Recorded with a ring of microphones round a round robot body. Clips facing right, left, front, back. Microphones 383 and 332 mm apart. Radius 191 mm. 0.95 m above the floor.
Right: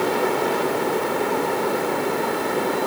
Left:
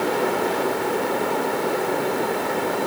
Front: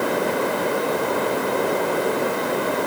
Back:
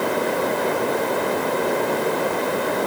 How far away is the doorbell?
No doorbell in this recording.